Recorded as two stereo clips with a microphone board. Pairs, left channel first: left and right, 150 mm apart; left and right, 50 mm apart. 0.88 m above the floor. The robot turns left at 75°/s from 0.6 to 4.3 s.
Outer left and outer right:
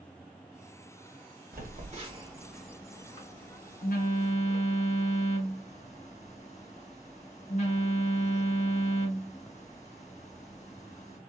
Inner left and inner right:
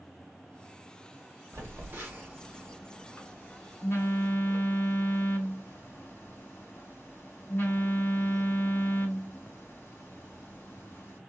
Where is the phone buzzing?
65° right (ahead or behind), 0.8 m; by 11.2 s 45° left (ahead or behind), 0.8 m.